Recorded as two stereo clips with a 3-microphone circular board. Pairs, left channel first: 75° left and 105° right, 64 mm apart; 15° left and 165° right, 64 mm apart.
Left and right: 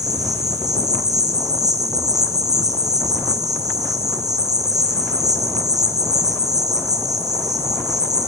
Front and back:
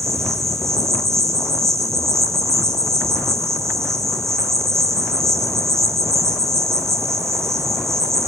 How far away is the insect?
About 2 m.